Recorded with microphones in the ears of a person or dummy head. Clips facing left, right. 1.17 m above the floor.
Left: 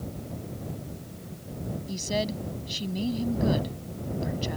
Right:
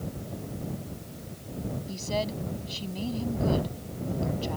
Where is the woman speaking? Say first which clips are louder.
Left 2 dB; 15° left (ahead or behind).